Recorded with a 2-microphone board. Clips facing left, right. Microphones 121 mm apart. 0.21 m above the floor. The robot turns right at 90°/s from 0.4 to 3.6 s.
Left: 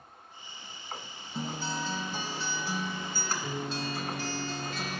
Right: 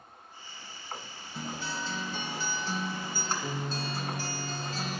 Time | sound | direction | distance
1.4 | a guitar | 40° left | 1.5 m